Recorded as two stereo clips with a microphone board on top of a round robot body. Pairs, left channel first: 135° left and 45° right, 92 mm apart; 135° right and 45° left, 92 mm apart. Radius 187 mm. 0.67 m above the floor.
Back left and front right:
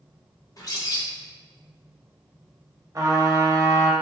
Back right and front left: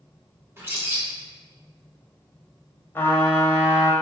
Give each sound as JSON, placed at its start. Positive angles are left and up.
{"t": 0.6, "sound": "a bird", "azimuth_deg": 100, "distance_m": 1.4}
{"t": 3.0, "sound": "a trumpet", "azimuth_deg": -80, "distance_m": 1.1}